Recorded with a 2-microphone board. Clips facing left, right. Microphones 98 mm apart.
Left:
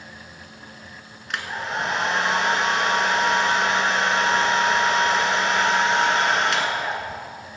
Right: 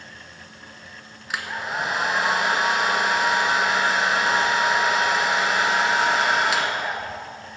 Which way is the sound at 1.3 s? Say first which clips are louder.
Even; 5° right (ahead or behind).